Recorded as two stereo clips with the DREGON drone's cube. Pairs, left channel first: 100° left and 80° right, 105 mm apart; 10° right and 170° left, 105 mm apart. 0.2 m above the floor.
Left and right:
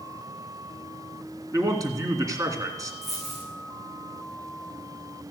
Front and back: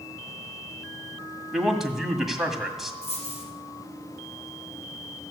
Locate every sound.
1.5 s a man speaking: 105° right, 1.9 m
3.0 s a dropped coin: 10° left, 5.5 m